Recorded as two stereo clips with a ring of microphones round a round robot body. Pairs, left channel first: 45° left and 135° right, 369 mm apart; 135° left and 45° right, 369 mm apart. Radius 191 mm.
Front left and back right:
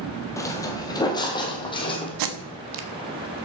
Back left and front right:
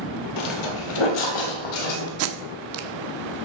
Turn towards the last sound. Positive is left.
turn(degrees=-100)